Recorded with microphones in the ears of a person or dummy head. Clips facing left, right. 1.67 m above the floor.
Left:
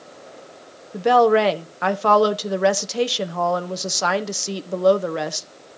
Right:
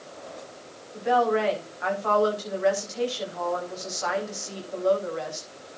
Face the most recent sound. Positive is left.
turn(degrees=80)